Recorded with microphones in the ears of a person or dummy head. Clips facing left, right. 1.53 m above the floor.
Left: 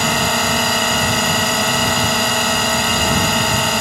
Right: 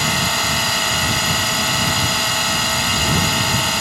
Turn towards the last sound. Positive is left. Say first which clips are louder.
# left 4 dB
turn(degrees=55)  # may be behind; listen again after turning